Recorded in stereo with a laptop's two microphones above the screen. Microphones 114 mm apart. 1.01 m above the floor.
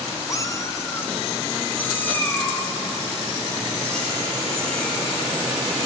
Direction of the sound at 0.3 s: 30° left (ahead or behind).